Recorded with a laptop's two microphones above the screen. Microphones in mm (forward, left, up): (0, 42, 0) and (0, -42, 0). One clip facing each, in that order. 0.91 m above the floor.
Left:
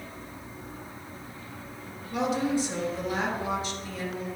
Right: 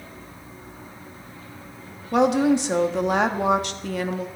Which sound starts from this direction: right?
A woman speaking, at 2.1 s.